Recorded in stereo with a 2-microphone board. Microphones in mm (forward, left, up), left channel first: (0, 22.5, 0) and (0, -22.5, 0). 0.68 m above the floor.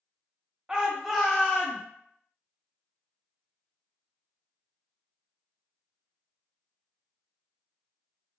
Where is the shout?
15° right (ahead or behind), 0.7 m; by 1.8 s 15° left (ahead or behind), 0.9 m.